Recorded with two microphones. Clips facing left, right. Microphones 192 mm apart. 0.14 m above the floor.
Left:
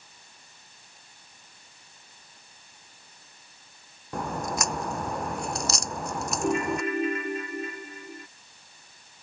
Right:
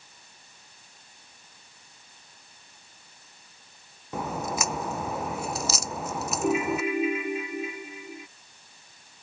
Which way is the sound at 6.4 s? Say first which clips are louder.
Right 1 dB; 5° right (ahead or behind).